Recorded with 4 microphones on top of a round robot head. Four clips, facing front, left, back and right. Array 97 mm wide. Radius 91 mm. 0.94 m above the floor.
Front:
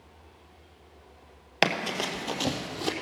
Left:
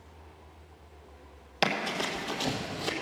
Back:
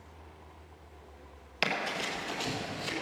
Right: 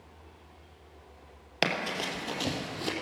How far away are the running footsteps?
About 1.3 m.